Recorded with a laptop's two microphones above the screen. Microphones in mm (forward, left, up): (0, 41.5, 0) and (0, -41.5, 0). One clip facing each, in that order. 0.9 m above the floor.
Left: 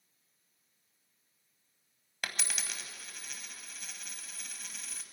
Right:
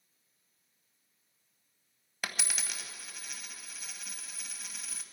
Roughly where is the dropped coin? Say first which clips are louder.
Right 1 dB; centre.